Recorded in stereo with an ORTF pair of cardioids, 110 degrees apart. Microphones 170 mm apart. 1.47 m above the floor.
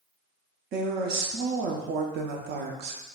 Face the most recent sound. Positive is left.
turn(degrees=-70)